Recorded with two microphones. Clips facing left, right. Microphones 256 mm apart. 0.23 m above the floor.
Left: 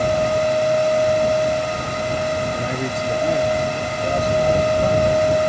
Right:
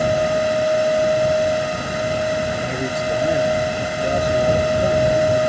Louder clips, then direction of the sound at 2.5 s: Even; 5° left (ahead or behind).